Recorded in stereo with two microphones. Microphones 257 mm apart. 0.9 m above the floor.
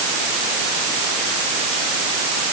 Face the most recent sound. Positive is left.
No sound to turn to.